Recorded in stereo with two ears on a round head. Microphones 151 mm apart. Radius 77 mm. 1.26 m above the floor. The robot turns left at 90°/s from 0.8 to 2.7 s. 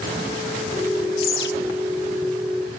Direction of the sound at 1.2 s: 75° left (ahead or behind).